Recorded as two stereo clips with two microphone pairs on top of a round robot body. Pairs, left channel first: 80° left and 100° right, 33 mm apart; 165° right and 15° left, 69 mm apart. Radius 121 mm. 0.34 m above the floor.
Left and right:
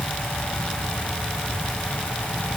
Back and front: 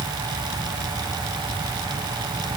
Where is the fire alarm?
No fire alarm in this recording.